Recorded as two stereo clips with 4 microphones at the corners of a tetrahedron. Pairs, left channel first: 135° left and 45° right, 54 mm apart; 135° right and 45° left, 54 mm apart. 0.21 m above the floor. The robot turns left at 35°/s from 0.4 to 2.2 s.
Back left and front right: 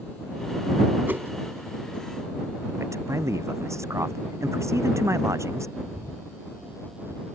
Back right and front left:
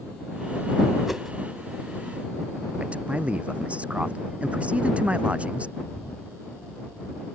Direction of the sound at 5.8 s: 70° right.